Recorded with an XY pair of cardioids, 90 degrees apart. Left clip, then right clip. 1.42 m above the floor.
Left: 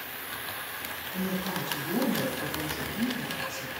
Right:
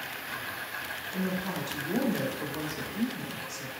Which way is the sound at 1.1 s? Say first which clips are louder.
Left 2 dB; 25° right.